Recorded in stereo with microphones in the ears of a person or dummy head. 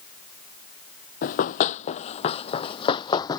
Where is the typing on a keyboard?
No typing on a keyboard in this recording.